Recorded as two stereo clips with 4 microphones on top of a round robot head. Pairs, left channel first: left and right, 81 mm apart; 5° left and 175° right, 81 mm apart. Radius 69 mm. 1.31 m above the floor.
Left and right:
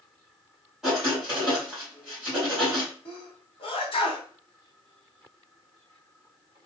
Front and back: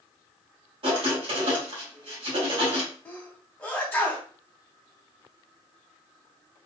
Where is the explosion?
I don't hear an explosion.